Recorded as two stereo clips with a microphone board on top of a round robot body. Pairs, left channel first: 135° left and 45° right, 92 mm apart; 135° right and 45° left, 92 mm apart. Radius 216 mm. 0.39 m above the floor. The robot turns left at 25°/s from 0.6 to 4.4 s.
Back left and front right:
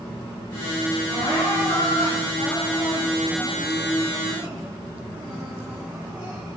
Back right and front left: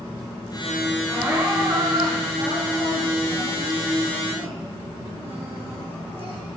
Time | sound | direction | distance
1.1 | crying | 115° left | 2.5 m